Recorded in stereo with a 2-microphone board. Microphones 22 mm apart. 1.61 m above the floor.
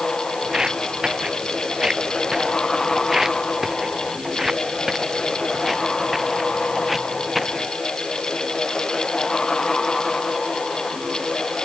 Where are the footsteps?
35° right (ahead or behind); by 7.7 s centre (ahead or behind).